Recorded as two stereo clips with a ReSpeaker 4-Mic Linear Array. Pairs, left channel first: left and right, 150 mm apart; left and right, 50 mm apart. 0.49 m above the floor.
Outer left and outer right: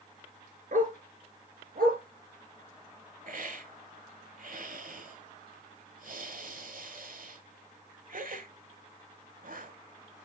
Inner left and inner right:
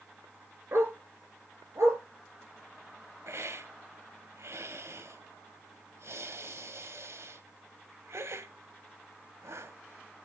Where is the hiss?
65° right (ahead or behind), 1.2 m.